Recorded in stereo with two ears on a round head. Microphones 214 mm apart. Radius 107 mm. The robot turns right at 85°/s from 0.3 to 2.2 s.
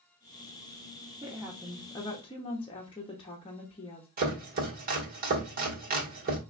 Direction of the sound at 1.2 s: 35° right.